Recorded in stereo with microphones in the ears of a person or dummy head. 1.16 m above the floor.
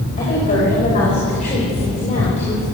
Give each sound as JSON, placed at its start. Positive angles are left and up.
{"t": 0.2, "sound": "a woman speaking", "side_deg": 35, "distance_m": 6.5}